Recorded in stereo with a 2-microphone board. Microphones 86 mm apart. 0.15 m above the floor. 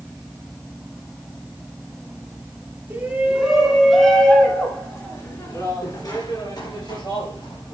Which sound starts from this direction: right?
A shout, at 2.9 s.